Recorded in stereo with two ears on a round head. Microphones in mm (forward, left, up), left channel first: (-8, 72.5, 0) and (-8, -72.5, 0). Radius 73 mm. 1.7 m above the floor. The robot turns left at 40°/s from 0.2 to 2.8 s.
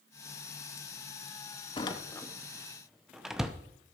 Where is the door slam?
30° left (ahead or behind), 0.7 m; by 3.5 s 5° right (ahead or behind), 0.7 m.